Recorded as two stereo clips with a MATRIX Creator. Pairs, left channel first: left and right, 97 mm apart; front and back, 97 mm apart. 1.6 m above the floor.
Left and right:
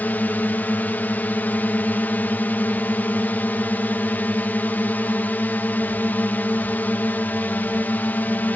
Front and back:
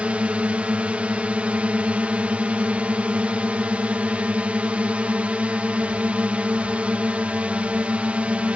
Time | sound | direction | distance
0.0 | a drone | 125° left | ?